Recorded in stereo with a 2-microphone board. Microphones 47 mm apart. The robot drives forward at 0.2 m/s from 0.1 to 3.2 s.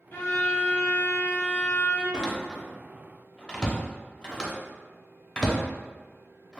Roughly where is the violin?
Left.